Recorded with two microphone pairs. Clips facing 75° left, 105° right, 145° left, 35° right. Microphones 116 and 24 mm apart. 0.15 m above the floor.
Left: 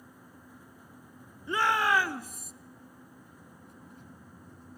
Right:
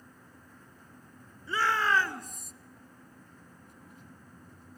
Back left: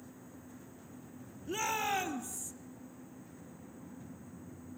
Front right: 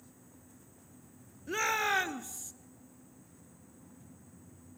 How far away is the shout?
About 1.9 m.